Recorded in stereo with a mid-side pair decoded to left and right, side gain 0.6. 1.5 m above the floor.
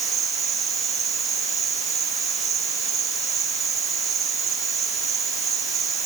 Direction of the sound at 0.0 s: 50° right.